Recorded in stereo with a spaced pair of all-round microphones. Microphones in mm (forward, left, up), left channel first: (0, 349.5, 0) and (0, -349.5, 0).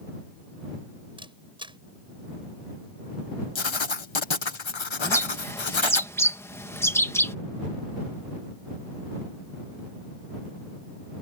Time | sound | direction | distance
1.2 | a camera shutter | 5° right (ahead or behind) | ?
3.5 | writing | 40° left (ahead or behind) | ?
5.0 | a bird | 5° left (ahead or behind) | ?